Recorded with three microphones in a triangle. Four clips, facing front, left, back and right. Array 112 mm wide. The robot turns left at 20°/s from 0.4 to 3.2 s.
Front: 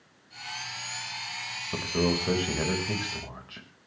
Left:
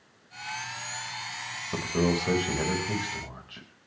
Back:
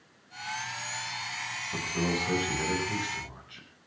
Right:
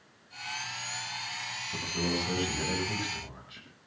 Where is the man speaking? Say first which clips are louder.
Left 7 dB, front 4 dB; 55° left, 6 m; by 3.7 s 25° left, 6 m.